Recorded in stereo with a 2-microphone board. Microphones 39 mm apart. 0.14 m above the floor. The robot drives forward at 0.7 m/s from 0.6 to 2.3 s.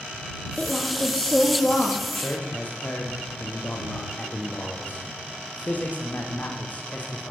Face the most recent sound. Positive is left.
turn(degrees=45)  # may be behind; listen again after turning